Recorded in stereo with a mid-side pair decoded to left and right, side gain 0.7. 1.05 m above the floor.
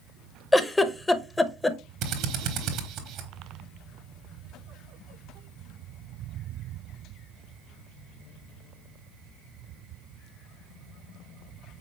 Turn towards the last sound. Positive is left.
turn(degrees=-60)